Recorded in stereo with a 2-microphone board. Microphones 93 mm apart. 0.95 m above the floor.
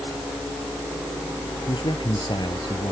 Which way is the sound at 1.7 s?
55° left (ahead or behind).